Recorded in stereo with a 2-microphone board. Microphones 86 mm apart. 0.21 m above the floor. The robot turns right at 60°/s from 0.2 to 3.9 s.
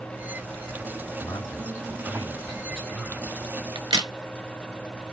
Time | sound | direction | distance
1.2 | a man speaking | 95° left | 1.4 m
3.8 | a crack | 75° right (ahead or behind) | 0.5 m